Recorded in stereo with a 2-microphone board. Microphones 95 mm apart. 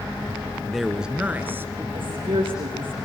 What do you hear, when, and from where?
0.6 s a man speaking: 5° left (ahead or behind), 1.4 m; by 1.8 s 25° right (ahead or behind), 2 m
1.9 s a woman speaking: 70° right (ahead or behind), 8 m